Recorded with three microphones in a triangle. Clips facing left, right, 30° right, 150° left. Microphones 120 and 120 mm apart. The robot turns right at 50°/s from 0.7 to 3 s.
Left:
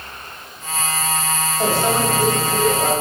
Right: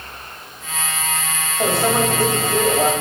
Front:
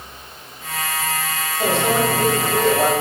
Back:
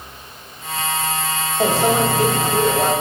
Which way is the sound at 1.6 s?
165° right.